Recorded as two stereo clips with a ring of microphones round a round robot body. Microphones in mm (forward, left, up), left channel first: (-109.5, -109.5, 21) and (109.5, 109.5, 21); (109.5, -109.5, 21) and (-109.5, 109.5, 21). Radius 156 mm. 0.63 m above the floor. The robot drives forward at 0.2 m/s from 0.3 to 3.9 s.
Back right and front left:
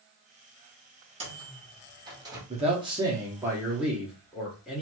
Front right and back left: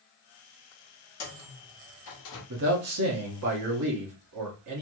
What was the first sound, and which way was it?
A microwave, 20° right.